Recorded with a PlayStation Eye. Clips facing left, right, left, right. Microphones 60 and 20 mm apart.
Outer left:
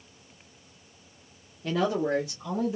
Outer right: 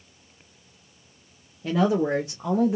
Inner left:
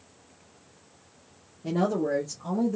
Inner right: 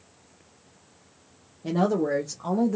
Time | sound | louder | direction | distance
1.6 | a woman speaking | outer right 4 dB, inner right 2 dB | 10° right (ahead or behind) | 0.9 m